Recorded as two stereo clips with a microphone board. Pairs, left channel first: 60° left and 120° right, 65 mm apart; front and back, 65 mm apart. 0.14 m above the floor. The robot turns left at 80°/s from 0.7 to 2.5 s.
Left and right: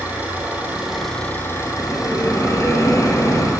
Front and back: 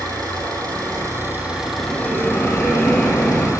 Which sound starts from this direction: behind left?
A bell, at 1.8 s.